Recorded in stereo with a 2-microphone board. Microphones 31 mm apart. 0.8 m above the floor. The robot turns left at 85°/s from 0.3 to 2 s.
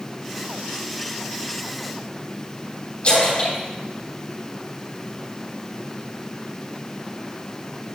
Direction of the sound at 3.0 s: 40° left (ahead or behind).